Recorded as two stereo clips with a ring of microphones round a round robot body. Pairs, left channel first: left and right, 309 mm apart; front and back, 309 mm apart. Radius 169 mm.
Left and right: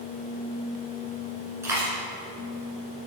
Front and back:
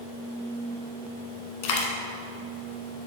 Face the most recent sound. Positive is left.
turn(degrees=-5)